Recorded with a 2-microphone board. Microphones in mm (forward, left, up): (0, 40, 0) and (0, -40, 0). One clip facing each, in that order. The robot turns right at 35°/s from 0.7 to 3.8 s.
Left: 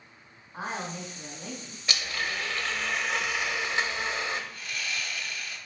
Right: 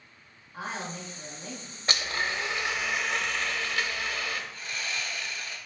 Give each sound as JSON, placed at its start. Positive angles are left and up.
{"t": 0.5, "sound": "a woman speaking", "azimuth_deg": 30, "distance_m": 3.0}
{"t": 1.9, "sound": "a blender", "azimuth_deg": -40, "distance_m": 0.7}
{"t": 4.5, "sound": "sawing", "side_deg": -30, "distance_m": 1.1}